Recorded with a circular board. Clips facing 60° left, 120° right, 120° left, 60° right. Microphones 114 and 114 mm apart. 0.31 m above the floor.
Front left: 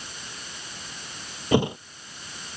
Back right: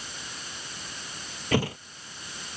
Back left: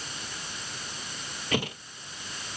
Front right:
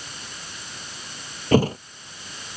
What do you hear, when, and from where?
1.5 s a thud: 10° right